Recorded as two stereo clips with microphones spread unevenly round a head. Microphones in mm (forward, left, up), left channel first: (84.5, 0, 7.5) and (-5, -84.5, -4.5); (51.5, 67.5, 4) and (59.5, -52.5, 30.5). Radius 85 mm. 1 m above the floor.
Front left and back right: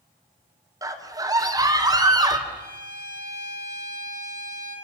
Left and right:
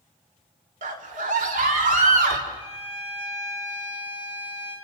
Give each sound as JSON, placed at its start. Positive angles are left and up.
{"t": 0.8, "sound": "a scream", "azimuth_deg": -75, "distance_m": 3.5}
{"t": 2.5, "sound": "a violin", "azimuth_deg": -130, "distance_m": 7.0}